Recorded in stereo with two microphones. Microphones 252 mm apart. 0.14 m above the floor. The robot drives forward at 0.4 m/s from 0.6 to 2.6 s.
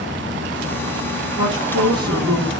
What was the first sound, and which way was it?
A woman speaking, 20° right (ahead or behind).